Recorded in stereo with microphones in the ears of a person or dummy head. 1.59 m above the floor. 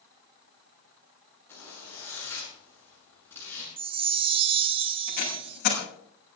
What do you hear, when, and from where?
1.5 s a zipper: 15° left (ahead or behind), 9.5 m
3.8 s a chime: 30° right (ahead or behind), 0.8 m
5.1 s tape being pulled: 55° left (ahead or behind), 6.5 m